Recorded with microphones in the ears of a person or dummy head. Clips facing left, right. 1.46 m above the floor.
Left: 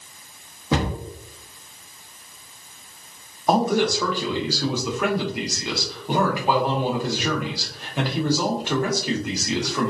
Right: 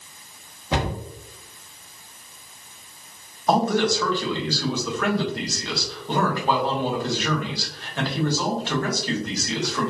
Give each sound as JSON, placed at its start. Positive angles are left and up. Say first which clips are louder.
{"t": 0.7, "sound": "a cupboard door", "louder": "left 2 dB", "side_deg": 70, "distance_m": 0.7}
{"t": 3.5, "sound": "a man speaking", "louder": "left 1 dB", "side_deg": 10, "distance_m": 0.6}